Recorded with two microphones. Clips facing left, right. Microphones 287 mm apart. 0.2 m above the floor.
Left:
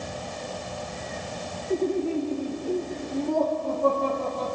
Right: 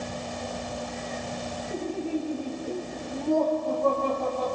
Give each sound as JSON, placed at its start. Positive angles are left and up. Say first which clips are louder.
{"t": 1.7, "sound": "laughter", "louder": "left 6 dB", "side_deg": 75, "distance_m": 6.0}